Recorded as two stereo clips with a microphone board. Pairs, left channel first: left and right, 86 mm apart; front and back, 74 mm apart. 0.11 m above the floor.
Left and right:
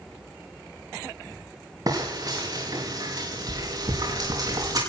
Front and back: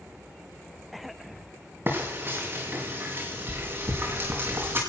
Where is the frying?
125° right, 5 m.